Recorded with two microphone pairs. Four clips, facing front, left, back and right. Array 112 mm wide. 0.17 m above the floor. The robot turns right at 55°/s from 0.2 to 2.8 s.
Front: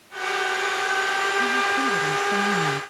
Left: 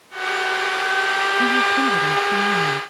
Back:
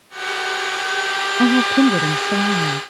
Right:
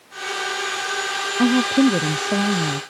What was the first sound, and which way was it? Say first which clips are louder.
A woman speaking: right 6 dB, back 13 dB; 155° right.